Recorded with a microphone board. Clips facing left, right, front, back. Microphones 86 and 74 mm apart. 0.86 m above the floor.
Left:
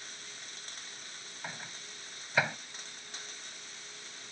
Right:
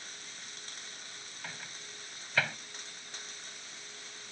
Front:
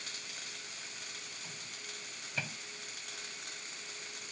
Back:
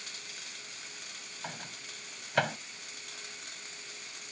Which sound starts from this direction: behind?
A microwave, at 1.4 s.